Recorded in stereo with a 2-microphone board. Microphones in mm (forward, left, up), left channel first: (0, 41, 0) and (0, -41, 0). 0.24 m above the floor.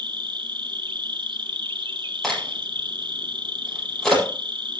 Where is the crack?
5° left (ahead or behind), 7.5 m.